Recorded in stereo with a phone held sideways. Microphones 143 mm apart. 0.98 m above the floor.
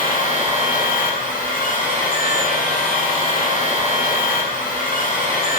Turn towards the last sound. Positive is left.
turn(degrees=75)  # may be behind; listen again after turning